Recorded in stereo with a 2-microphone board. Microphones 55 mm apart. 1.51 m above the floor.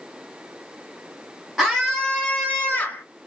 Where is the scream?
5° left (ahead or behind), 1.3 m; by 3.0 s 40° left (ahead or behind), 1.4 m.